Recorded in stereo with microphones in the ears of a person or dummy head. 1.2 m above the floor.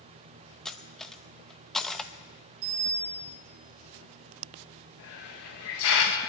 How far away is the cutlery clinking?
About 0.7 m.